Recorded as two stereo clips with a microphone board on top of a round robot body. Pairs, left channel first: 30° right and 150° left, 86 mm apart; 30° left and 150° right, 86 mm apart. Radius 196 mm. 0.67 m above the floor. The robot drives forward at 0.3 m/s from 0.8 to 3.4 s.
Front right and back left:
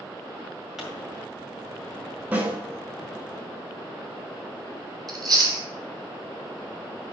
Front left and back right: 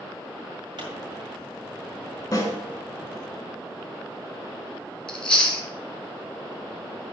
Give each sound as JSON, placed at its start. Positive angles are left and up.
{"t": 0.8, "sound": "a pop", "azimuth_deg": -125, "distance_m": 4.5}
{"t": 2.3, "sound": "a snare drum", "azimuth_deg": 85, "distance_m": 4.0}
{"t": 5.1, "sound": "chewing", "azimuth_deg": 110, "distance_m": 3.5}